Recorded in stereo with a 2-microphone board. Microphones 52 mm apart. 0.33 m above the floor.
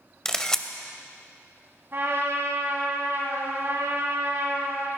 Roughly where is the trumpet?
Right.